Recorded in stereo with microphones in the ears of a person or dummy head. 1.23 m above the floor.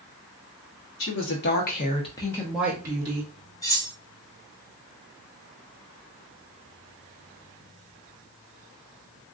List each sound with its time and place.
1.0 s a woman speaking: 65° left (ahead or behind), 1.2 m; by 3.3 s 30° right (ahead or behind), 1.0 m
3.6 s cutlery clinking: 15° left (ahead or behind), 0.7 m